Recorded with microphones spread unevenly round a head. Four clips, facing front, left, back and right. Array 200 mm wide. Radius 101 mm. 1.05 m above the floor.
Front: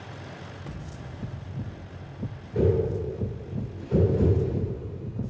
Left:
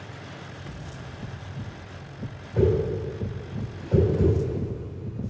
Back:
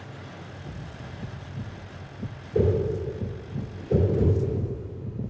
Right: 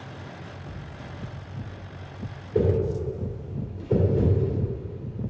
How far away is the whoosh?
About 3 m.